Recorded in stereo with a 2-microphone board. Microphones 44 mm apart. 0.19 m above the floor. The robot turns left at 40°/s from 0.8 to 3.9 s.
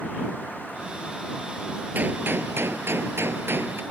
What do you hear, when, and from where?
1.9 s a gunshot: 50° right; by 3.8 s 125° right